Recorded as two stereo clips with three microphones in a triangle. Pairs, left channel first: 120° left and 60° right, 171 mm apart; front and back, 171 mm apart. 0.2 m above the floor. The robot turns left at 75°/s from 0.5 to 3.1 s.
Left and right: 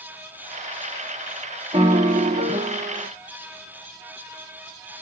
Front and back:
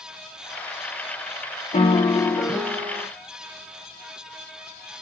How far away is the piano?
About 0.7 m.